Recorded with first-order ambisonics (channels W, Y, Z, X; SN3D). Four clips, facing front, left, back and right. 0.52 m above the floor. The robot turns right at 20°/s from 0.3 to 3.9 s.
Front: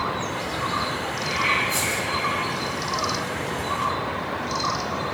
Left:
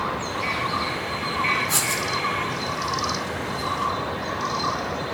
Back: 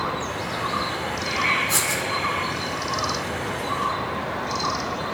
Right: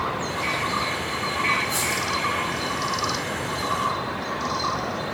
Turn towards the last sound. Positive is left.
turn(degrees=180)